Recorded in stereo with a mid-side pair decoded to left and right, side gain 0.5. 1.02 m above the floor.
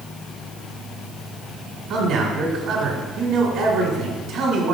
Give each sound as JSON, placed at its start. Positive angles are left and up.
{"t": 1.9, "sound": "a man speaking", "azimuth_deg": -65, "distance_m": 1.9}